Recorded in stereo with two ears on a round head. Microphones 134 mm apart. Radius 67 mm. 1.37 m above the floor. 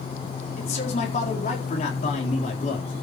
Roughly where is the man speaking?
Left.